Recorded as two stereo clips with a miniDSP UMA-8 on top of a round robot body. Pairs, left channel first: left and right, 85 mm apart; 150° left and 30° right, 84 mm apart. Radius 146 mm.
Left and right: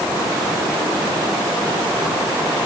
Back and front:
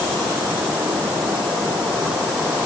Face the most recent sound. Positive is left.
No sound to turn to.